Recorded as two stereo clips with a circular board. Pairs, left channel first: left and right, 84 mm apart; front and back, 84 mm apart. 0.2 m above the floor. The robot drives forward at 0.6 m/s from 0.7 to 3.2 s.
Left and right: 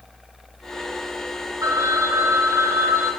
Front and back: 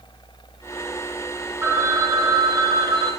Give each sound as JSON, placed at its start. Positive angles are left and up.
{"t": 1.6, "sound": "a phone ringing", "azimuth_deg": -125, "distance_m": 1.0}